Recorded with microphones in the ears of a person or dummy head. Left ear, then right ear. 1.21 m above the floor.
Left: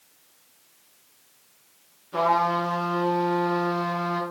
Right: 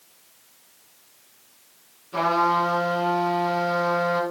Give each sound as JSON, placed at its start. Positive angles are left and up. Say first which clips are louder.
{"t": 2.1, "sound": "a trumpet", "louder": "right 1 dB", "side_deg": 5, "distance_m": 7.0}